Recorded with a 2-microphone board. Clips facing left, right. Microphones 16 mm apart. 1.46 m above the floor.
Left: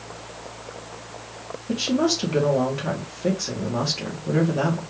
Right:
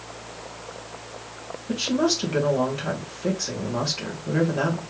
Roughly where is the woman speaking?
Centre.